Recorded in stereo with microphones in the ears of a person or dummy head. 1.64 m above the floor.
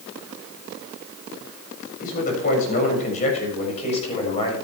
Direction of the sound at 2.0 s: 50° left (ahead or behind).